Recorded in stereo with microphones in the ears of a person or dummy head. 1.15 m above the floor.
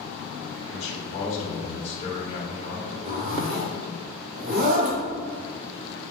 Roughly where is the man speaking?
Left.